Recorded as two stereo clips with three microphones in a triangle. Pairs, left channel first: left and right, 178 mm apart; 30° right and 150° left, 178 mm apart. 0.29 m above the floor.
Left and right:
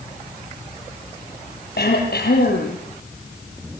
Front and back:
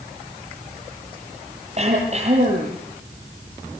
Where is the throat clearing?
100° left, 7 m.